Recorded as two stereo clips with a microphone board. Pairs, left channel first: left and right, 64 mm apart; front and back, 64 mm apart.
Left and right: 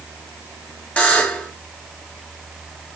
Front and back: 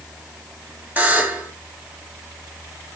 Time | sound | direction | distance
1.0 | a buzzer | 145° left | 1.4 m